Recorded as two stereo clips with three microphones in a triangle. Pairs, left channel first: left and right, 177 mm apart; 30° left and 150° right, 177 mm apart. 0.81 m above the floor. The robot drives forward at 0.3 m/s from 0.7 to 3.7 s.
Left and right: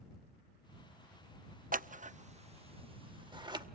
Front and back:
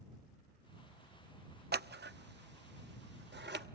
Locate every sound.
1.7 s scissors: 130° right, 0.5 m; by 3.6 s 155° right, 1.0 m